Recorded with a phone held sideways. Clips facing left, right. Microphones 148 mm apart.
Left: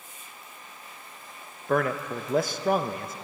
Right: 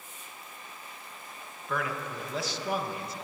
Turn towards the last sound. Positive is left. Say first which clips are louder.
# left 8 dB
turn(degrees=50)  # may be behind; listen again after turning